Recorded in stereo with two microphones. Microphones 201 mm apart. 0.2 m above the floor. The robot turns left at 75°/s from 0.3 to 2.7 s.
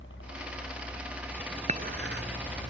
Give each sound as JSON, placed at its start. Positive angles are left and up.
{"t": 0.0, "sound": "a helicopter", "azimuth_deg": 95}
{"t": 1.7, "sound": "dishes clattering", "side_deg": -35}